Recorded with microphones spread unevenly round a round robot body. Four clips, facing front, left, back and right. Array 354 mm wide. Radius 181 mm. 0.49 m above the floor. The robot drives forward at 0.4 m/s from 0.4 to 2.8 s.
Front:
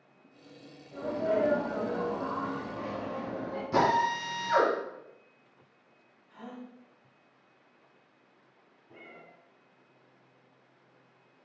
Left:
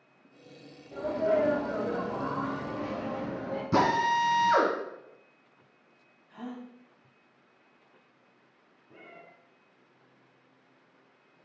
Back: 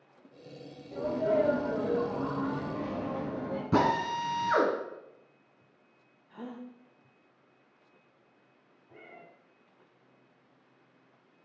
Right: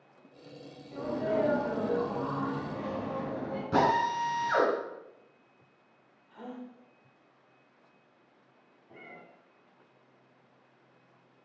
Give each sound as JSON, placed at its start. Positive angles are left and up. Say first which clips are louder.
{"t": 0.9, "sound": "a sneeze", "louder": "left 3 dB, back 2 dB", "azimuth_deg": 180, "distance_m": 2.0}
{"t": 3.7, "sound": "a drill", "louder": "left 1 dB, front 1 dB", "azimuth_deg": 170, "distance_m": 2.5}
{"t": 6.3, "sound": "a gasp", "louder": "left 2 dB, back 2 dB", "azimuth_deg": 165, "distance_m": 0.8}
{"t": 8.9, "sound": "a cat meowing", "louder": "right 1 dB, even", "azimuth_deg": -65, "distance_m": 1.4}